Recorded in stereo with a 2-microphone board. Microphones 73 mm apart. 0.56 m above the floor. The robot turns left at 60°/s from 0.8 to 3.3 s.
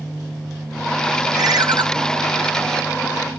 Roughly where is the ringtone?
Right.